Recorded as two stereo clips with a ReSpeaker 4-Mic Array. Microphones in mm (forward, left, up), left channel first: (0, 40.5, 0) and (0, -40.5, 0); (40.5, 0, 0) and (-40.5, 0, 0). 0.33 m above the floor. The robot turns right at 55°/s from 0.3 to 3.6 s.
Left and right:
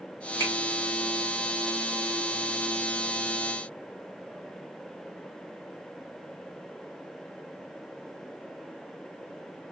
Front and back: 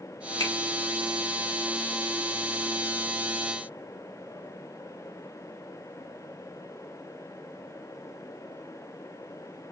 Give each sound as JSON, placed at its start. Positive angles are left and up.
{"t": 0.4, "sound": "a finger snap", "azimuth_deg": 35, "distance_m": 1.9}